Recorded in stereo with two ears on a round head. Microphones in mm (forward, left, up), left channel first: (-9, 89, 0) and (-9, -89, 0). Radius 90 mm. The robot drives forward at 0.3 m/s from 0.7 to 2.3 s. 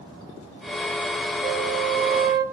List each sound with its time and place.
1.4 s a flute: 50° right (ahead or behind), 0.8 m